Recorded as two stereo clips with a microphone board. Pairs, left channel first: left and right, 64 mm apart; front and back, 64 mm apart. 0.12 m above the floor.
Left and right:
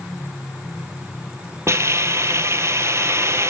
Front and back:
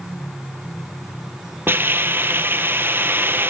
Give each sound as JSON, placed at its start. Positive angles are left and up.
{"t": 1.7, "sound": "a hiss", "azimuth_deg": -130, "distance_m": 0.9}